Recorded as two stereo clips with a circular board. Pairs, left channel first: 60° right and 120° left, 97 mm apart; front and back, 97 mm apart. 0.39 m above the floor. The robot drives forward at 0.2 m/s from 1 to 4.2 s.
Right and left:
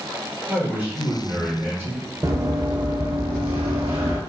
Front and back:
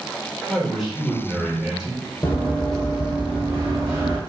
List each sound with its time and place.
0.5 s a man speaking: 85° left, 1.2 m; by 2.1 s 115° left, 1.2 m
2.2 s running footsteps: 65° left, 1.1 m; by 4.2 s 135° left, 1.6 m